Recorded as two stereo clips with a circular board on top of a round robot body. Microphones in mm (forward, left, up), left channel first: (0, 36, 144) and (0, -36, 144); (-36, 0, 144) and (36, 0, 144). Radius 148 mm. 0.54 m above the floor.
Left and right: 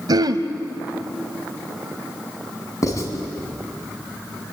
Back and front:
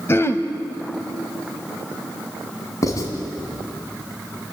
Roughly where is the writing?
Behind left.